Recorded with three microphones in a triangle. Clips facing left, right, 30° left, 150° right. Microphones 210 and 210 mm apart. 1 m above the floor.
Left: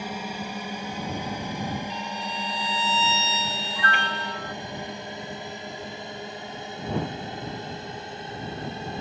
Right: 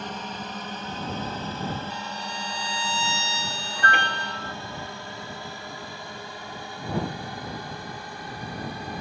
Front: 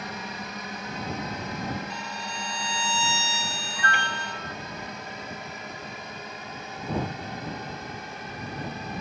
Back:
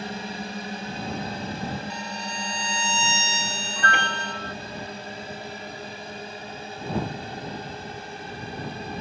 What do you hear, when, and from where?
0.0 s a drone: 165° left; by 9.0 s 155° left
1.9 s a violin: 135° right
3.8 s a piano: 125° right